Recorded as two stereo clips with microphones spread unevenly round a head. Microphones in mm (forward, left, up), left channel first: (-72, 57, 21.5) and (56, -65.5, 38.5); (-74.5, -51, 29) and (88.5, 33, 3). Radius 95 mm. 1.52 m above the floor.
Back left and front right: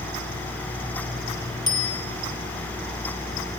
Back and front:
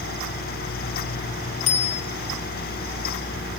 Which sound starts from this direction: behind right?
A bicycle bell, at 1.7 s.